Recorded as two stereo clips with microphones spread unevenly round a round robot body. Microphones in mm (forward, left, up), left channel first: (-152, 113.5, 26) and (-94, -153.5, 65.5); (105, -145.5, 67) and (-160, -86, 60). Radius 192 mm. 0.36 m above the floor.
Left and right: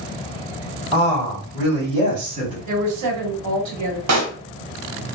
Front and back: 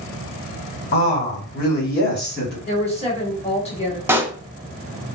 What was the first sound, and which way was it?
A woman speaking, 30° left.